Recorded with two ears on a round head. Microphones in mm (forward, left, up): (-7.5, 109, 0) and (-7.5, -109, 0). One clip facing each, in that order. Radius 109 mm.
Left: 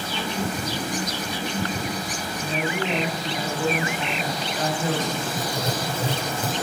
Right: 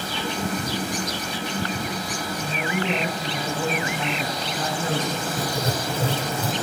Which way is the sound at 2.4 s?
75° right (ahead or behind).